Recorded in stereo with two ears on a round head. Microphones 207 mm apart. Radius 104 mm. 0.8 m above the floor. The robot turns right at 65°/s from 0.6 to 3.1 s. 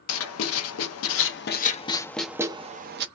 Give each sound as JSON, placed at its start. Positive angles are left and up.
{"t": 0.1, "sound": "writing", "side_deg": 65, "distance_m": 0.5}